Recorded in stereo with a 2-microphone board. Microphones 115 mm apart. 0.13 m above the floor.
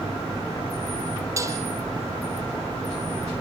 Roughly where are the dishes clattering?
Right.